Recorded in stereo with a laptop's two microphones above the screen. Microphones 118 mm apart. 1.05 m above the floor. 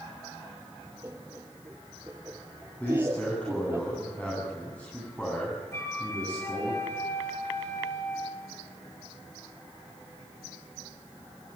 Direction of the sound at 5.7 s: 20° left (ahead or behind).